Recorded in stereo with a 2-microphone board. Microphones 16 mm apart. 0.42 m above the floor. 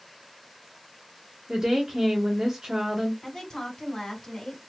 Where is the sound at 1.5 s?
35° right (ahead or behind), 1.3 m.